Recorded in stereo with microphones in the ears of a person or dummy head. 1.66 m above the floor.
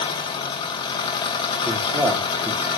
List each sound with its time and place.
0.0 s an engine running: 30° left (ahead or behind), 1.1 m
1.6 s a man speaking: 10° right (ahead or behind), 2.5 m